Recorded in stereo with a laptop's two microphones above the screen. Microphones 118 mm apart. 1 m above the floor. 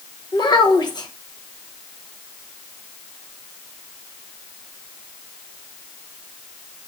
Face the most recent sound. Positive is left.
turn(degrees=35)  # may be behind; listen again after turning